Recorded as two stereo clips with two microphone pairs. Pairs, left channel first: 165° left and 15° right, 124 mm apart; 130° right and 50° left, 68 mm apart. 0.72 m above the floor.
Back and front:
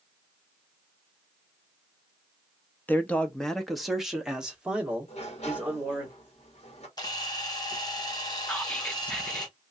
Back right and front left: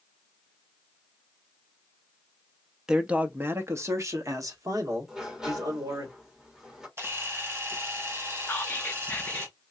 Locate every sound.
2.9 s a man speaking: 130° left, 0.6 m; by 6.1 s 60° left, 1.9 m
5.1 s a sliding door: 135° left, 1.4 m
7.0 s a camera shutter: 105° left, 1.0 m
8.5 s whispering: 130° right, 0.8 m